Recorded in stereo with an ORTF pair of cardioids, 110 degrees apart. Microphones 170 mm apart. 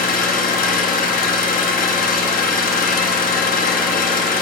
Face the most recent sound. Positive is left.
turn(degrees=55)